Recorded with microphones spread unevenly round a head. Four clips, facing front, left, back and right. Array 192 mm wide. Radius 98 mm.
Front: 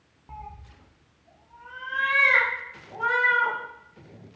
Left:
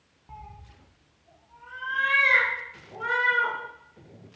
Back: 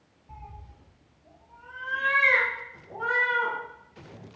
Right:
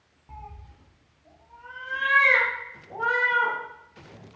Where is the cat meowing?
5° right, 0.6 m; by 3.5 s 150° right, 2 m.